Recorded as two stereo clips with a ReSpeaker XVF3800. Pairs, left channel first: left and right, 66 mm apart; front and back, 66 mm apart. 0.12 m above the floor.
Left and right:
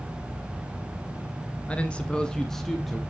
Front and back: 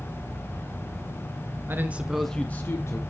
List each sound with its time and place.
1.7 s a man speaking: 150° left, 1.3 m; by 3.0 s straight ahead, 1.5 m